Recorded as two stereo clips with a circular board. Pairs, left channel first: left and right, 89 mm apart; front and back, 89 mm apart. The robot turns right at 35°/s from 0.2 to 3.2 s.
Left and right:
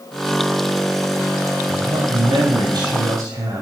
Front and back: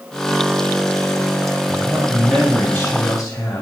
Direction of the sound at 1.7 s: 115° right.